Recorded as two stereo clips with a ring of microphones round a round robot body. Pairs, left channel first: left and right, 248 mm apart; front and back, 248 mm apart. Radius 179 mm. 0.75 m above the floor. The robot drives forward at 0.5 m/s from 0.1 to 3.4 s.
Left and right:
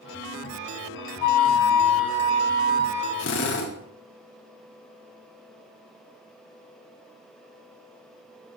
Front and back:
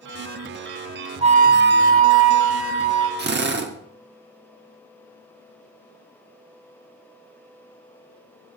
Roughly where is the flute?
Left.